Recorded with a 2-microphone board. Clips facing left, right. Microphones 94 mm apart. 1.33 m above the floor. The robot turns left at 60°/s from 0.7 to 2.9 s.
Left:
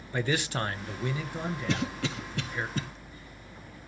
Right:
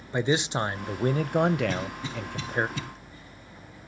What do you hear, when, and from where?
0.1 s a man speaking: 20° right, 0.6 m; by 2.7 s 140° right, 0.6 m
1.7 s a cough: 70° left (ahead or behind), 1.5 m; by 2.8 s 35° left (ahead or behind), 1.5 m